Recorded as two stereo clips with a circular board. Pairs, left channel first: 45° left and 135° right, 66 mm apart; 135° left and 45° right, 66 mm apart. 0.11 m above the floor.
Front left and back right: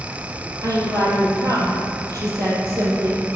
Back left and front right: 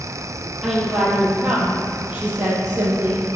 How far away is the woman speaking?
About 2 m.